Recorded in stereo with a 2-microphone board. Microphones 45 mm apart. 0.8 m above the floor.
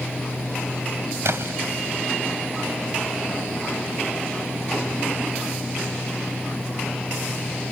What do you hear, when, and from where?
1.2 s a splash: 75° right (ahead or behind)